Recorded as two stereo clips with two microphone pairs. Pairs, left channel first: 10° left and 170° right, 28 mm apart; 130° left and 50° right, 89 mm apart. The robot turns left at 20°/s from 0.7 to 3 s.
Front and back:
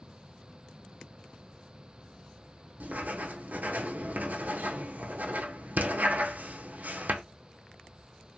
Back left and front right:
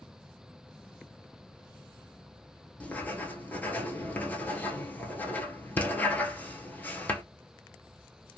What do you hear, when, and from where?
2.8 s writing: 160° right, 0.7 m